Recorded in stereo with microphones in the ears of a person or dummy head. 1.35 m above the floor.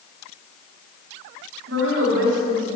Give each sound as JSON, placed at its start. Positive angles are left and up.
{"t": 1.7, "sound": "a woman speaking", "side_deg": -75, "distance_m": 3.0}